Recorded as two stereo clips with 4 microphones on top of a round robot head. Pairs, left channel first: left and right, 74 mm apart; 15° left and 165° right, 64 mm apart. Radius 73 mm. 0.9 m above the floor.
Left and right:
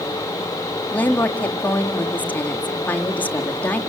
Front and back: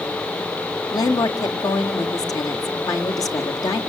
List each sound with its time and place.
0.9 s a woman speaking: 25° left, 1.9 m